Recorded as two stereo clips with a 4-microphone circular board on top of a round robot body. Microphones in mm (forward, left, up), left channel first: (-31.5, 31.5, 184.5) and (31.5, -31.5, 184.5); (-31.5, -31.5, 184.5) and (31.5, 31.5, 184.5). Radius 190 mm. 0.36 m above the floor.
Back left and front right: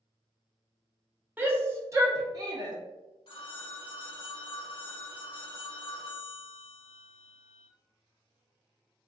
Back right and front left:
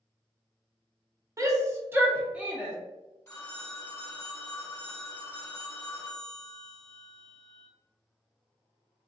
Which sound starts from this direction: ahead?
A shout, at 1.4 s.